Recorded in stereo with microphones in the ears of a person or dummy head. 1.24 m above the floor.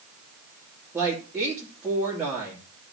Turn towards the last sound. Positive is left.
turn(degrees=-5)  # may be behind; listen again after turning